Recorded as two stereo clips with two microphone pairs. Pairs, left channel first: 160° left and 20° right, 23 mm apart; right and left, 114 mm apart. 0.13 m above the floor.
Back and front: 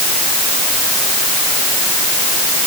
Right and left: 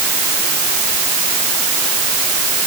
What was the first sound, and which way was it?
Only background noise.